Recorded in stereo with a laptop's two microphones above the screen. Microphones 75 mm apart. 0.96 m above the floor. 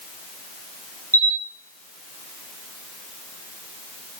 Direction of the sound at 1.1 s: 45° right (ahead or behind).